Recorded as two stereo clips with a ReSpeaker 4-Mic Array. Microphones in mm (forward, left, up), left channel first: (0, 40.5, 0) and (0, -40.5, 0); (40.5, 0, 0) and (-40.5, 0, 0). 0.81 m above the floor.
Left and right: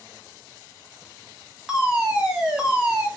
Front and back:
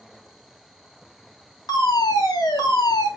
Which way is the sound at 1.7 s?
10° right.